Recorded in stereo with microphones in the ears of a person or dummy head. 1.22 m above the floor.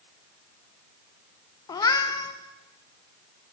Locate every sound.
1.7 s a cat meowing: 25° left (ahead or behind), 0.6 m